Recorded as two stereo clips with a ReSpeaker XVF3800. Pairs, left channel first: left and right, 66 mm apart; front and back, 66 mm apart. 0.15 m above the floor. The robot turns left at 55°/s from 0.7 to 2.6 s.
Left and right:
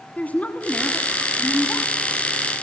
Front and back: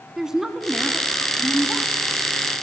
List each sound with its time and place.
0.2 s a woman speaking: 110° left, 1.6 m; by 1.9 s 45° left, 1.6 m